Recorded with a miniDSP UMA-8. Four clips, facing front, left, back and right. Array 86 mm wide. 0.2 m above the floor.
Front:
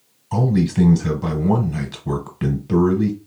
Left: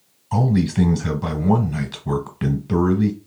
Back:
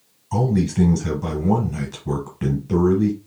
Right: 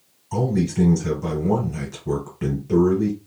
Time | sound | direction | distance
0.3 | a man speaking | 50° left | 1.3 m